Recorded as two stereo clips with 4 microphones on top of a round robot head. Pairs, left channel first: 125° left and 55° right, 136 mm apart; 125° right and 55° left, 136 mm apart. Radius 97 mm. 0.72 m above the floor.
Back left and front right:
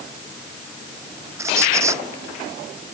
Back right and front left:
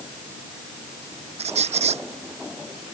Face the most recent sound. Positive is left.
turn(degrees=15)